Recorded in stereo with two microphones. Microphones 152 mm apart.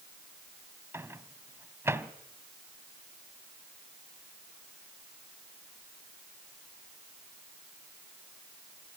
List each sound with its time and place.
0.9 s a microwave: 15° right (ahead or behind), 0.9 m